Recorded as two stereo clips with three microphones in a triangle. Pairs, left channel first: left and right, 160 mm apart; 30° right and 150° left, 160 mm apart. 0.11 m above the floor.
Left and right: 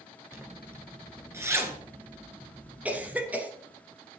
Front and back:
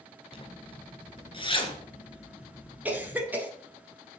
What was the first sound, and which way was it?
A zipper, 30° right.